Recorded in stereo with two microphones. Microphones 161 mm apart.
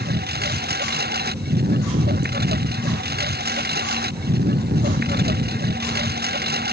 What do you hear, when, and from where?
0.0 s a lawn mower: 90° right